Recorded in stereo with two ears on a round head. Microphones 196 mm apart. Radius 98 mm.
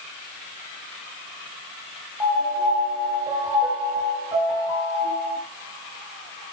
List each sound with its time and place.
2.2 s a piano: 15° right (ahead or behind), 7.5 m